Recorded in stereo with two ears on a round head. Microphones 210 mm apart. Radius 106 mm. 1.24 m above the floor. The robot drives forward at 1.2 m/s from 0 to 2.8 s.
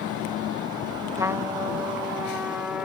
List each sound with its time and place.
1.2 s a trumpet: 15° right (ahead or behind); by 2.9 s 5° right (ahead or behind)